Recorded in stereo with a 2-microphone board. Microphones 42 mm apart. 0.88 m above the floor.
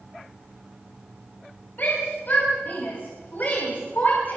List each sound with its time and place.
1.8 s a shout: 50° left (ahead or behind), 6 m; by 4.4 s 45° left (ahead or behind), 4.5 m